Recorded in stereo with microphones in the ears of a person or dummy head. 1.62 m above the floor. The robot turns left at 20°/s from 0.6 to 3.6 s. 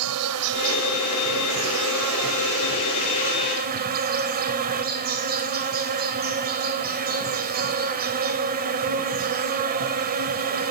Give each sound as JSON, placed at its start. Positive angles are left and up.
{"t": 0.0, "sound": "an insect", "azimuth_deg": -80, "distance_m": 0.7}